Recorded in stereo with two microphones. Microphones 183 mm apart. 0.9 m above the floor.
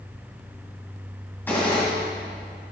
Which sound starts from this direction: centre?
A gunshot, at 1.5 s.